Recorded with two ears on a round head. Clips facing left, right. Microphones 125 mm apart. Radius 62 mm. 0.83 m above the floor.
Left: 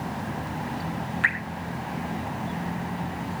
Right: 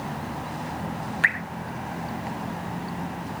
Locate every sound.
1.2 s dripping: 50° right (ahead or behind), 3.5 m